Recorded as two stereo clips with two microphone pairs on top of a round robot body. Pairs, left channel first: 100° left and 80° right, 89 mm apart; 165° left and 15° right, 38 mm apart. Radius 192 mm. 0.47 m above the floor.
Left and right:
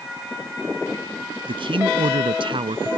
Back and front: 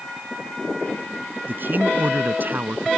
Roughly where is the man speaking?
Ahead right.